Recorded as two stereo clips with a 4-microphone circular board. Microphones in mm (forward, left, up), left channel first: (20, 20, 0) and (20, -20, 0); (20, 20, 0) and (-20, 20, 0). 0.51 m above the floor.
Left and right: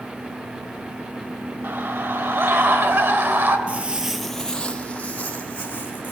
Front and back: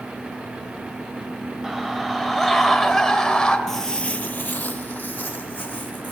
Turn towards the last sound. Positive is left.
turn(degrees=45)